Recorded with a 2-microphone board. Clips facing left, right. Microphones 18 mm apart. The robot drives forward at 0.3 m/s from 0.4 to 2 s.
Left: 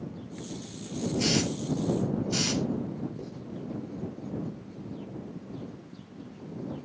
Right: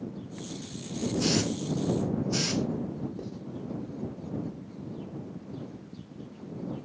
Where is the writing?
35° right (ahead or behind), 1.3 m.